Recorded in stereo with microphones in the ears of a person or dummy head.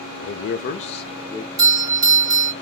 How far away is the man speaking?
About 0.6 m.